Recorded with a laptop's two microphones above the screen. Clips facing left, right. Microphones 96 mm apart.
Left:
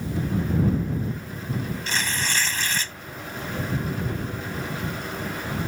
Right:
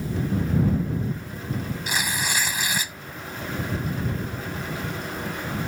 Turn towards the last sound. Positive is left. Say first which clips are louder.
# right 2 dB
turn(degrees=-10)  # may be behind; listen again after turning